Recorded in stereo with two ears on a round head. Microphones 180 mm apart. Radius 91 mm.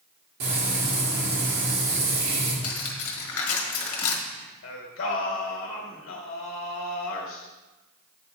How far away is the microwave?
I don't hear a microwave.